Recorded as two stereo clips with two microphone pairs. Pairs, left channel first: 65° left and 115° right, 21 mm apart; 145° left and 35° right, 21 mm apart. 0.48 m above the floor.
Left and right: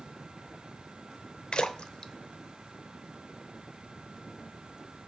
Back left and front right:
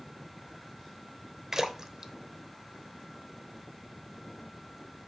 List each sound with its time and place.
1.5 s a splash: 25° left, 0.8 m